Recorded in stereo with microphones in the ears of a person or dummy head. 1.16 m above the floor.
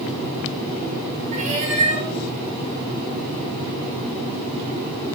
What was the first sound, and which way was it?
A cat meowing, 40° right (ahead or behind).